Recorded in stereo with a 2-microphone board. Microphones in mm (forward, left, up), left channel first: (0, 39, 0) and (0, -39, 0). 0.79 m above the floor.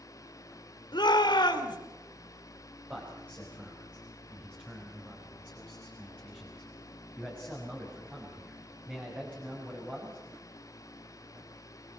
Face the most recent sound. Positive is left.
turn(degrees=-20)  # may be behind; listen again after turning